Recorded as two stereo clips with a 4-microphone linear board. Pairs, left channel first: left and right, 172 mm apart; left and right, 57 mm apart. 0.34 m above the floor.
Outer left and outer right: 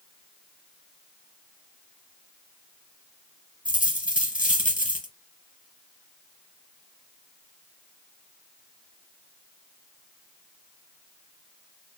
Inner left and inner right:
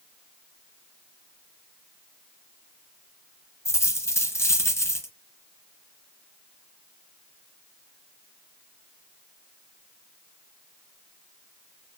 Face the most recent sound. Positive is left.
turn(degrees=50)  # may be behind; listen again after turning